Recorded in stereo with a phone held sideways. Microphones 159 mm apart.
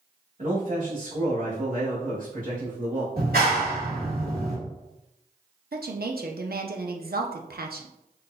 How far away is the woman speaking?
About 0.6 m.